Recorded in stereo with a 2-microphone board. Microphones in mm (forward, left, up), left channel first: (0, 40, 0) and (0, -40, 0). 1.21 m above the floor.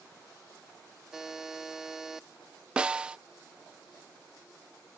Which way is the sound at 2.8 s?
15° right (ahead or behind).